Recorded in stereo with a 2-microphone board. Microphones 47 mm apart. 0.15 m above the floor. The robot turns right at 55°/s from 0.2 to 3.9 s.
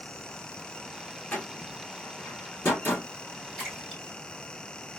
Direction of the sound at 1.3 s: 25° left (ahead or behind).